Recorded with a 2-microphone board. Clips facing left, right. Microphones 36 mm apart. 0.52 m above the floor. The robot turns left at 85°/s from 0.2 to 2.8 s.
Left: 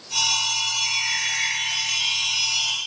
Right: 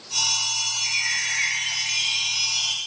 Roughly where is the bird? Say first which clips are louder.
Left 1 dB; ahead.